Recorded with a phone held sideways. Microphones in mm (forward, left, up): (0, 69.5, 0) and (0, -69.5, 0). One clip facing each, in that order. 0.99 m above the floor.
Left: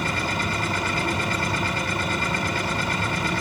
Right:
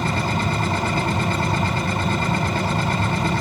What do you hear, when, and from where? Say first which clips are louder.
0.0 s a machine running: right 4 dB; 30° right (ahead or behind), 2.5 m